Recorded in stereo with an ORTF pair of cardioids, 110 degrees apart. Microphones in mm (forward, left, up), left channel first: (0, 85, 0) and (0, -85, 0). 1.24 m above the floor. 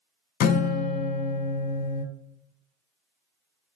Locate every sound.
0.4 s a guitar: 60° left, 0.5 m